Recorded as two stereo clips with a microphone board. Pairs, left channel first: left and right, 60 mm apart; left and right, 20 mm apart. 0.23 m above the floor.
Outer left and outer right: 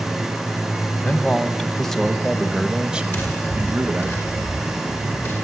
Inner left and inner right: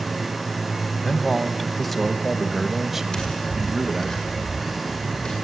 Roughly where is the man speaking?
Centre.